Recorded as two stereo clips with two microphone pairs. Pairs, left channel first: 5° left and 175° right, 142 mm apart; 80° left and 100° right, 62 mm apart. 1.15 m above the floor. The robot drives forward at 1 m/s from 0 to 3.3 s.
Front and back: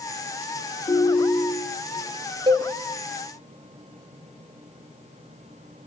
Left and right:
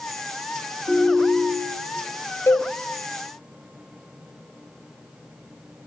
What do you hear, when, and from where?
0.9 s a ringtone: 35° right, 3 m; by 2.0 s 55° right, 2.5 m
2.5 s a cowbell: 130° left, 1.2 m; by 2.7 s 135° left, 1.4 m